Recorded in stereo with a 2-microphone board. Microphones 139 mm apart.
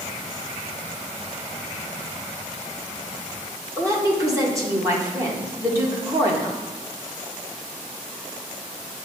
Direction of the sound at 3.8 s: 20° right (ahead or behind).